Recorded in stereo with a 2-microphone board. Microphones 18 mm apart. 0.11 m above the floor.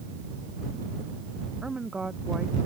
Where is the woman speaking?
60° right (ahead or behind).